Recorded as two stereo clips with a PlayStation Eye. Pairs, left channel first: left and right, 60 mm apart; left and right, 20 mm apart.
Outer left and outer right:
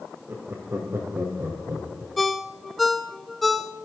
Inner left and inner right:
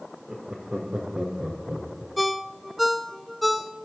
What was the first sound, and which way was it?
Laughter, 50° right (ahead or behind).